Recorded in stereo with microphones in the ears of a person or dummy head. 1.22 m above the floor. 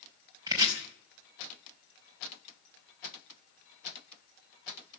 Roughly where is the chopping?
Right.